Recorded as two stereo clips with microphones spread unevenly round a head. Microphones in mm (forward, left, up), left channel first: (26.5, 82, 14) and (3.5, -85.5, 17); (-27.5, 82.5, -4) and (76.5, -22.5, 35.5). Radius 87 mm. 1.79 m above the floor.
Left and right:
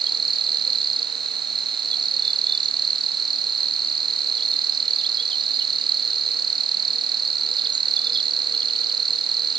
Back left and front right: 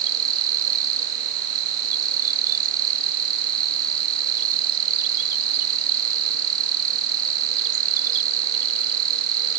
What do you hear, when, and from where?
0.0 s an insect: 35° right